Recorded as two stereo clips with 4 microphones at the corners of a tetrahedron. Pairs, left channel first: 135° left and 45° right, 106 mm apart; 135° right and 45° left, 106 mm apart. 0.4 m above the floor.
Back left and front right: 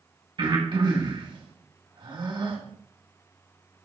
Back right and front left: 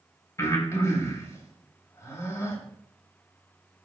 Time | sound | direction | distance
0.4 | breathing | 80° right | 2.5 m